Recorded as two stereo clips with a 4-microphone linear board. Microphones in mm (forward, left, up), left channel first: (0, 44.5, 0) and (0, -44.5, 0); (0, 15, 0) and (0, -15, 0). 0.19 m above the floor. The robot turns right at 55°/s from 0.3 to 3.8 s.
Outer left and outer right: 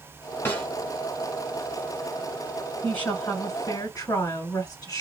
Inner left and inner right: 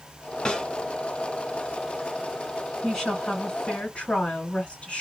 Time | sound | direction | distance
0.5 | a snare drum | 25° left (ahead or behind) | 1.2 m
2.8 | a woman speaking | 15° left | 2.5 m